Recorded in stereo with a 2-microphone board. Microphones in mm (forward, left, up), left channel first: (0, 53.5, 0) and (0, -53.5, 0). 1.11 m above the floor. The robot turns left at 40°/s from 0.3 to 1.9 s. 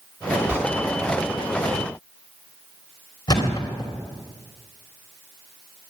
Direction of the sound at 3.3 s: 40° left (ahead or behind).